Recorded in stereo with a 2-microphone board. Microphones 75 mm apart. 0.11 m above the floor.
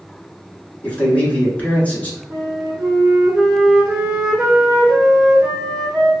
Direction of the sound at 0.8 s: 20° left (ahead or behind).